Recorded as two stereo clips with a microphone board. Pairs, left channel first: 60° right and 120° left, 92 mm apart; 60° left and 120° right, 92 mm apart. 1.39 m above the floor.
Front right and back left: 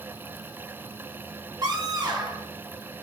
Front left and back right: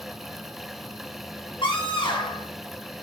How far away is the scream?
About 4 m.